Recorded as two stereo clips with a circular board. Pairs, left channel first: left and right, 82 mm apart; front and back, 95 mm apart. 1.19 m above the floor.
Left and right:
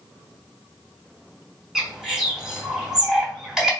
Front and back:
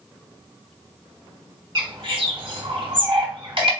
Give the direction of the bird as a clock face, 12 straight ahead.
6 o'clock.